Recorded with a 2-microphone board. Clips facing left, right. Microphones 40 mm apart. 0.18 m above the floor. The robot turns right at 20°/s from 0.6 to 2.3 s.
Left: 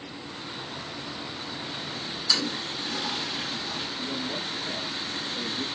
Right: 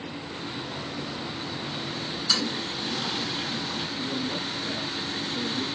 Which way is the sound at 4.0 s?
15° right (ahead or behind).